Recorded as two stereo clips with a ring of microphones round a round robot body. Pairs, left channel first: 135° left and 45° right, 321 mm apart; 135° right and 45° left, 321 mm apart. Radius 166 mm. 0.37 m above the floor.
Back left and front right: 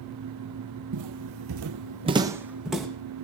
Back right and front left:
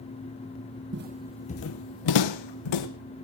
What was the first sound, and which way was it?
Footsteps, 10° right.